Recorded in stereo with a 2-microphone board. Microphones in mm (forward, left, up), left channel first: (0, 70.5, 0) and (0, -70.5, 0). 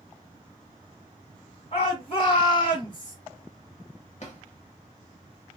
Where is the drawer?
50° left (ahead or behind), 0.8 m.